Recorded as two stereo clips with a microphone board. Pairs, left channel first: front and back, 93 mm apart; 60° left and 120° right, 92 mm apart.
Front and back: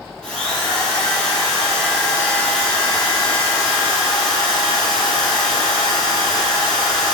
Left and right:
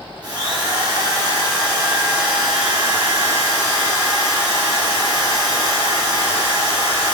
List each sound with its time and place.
0.2 s a drill: 80° right, 4 m